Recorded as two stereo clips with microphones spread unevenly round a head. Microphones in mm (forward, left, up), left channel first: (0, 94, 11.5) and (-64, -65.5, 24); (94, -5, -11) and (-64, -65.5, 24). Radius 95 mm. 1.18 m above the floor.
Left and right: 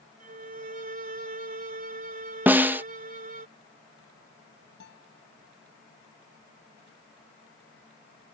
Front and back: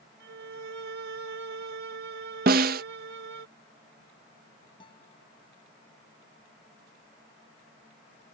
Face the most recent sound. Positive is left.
turn(degrees=90)